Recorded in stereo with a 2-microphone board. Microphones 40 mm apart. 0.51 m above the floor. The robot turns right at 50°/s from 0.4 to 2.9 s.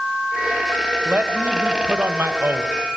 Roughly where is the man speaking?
Behind right.